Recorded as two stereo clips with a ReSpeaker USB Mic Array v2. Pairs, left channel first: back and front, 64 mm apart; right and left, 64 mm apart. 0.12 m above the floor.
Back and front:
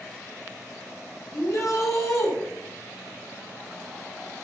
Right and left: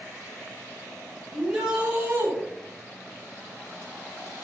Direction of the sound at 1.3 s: 170° left.